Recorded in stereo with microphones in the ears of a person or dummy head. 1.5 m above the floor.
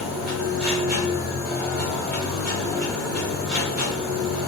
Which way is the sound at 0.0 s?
10° right (ahead or behind).